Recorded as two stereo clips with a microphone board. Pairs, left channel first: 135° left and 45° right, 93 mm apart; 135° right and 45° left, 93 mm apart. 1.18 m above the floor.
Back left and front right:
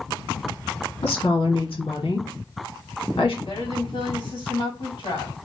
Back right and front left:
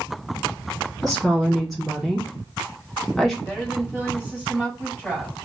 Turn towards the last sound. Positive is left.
turn(degrees=125)